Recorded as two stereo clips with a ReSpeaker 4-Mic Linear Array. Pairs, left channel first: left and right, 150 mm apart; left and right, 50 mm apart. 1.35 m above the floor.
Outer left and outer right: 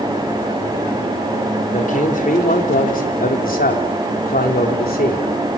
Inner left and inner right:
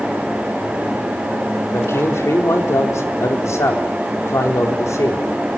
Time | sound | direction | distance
1.7 | a man speaking | 60° left (ahead or behind) | 5 m